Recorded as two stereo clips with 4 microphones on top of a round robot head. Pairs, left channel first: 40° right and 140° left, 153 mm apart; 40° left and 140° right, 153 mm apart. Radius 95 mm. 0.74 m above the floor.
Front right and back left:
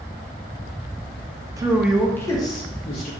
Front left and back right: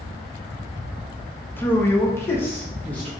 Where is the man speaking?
105° left, 0.6 m; by 3.1 s 30° right, 0.8 m.